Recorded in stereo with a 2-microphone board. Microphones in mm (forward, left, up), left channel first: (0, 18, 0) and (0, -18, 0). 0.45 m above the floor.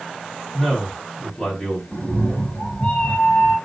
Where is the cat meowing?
35° left (ahead or behind), 2.5 m.